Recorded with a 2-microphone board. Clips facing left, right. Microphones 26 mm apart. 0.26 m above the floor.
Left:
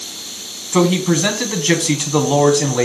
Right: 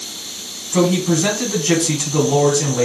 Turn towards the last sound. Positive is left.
turn(degrees=35)  # may be behind; listen again after turning